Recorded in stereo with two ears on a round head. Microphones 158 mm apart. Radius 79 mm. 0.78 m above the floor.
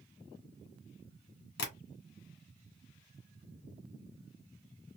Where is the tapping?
65° left (ahead or behind), 1.7 m.